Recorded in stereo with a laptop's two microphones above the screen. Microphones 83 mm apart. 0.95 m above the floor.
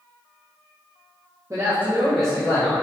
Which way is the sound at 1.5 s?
40° right (ahead or behind).